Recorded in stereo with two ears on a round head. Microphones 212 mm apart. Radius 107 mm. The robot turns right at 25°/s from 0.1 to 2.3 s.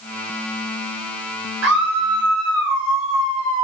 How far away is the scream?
About 6 m.